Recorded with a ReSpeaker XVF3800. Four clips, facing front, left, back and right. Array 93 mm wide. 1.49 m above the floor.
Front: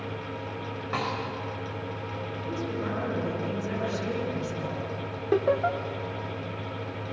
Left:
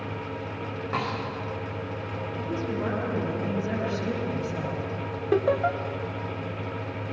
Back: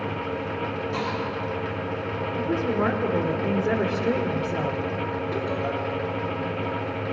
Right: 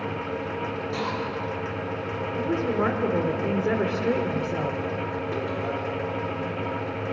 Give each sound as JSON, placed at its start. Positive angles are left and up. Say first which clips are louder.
{"t": 0.9, "sound": "a snare drum", "louder": "left 2 dB, front 2 dB", "azimuth_deg": 40, "distance_m": 7.0}
{"t": 2.4, "sound": "a woman speaking", "louder": "right 6 dB, back 9 dB", "azimuth_deg": -130, "distance_m": 4.0}
{"t": 5.3, "sound": "laughter", "louder": "left 10 dB, front 8 dB", "azimuth_deg": 55, "distance_m": 1.5}